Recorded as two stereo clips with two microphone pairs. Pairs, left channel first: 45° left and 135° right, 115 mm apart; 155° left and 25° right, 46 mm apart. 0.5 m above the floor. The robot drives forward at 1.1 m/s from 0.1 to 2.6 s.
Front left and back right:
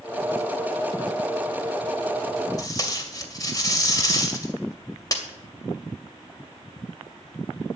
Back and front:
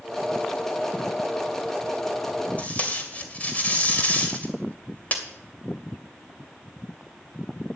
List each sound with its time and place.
2.6 s tape being pulled: 100° left, 2.5 m